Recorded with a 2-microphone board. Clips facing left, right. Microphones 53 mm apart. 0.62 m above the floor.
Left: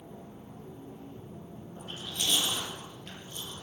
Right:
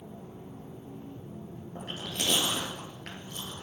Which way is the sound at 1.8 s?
80° right.